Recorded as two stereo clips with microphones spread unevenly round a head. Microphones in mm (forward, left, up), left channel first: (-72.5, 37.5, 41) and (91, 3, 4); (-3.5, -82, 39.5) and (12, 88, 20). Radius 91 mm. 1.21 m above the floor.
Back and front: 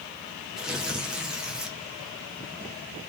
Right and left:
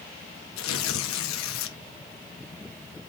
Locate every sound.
0.6 s tearing paper: 100° right, 1.3 m